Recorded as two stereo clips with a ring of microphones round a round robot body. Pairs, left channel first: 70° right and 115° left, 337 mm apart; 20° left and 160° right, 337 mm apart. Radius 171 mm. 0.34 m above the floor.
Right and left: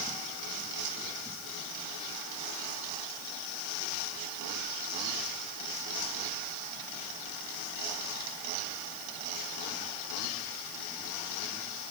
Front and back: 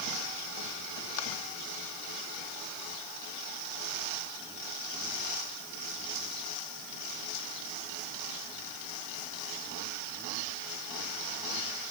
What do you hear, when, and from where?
Only background noise.